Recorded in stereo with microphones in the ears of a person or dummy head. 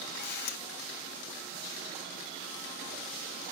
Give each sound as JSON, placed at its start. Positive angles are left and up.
{"t": 0.1, "sound": "a camera shutter", "side_deg": 60, "distance_m": 0.5}